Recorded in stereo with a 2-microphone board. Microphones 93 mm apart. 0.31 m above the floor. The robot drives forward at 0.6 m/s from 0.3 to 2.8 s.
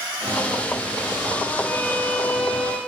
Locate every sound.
1.6 s a violin: 20° left (ahead or behind), 0.9 m; by 2.8 s 10° left (ahead or behind), 1.5 m